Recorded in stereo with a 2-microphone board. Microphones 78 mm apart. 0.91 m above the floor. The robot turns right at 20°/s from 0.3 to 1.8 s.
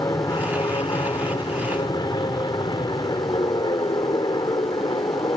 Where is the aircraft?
60° left; by 5.4 s 90° left.